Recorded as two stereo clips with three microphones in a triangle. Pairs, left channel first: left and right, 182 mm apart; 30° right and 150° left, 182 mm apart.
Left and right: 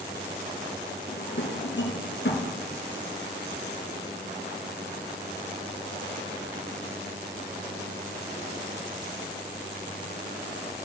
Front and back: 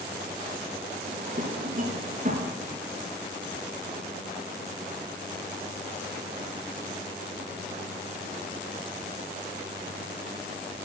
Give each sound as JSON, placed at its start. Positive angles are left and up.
{"t": 1.1, "sound": "a drawer", "azimuth_deg": 105, "distance_m": 2.5}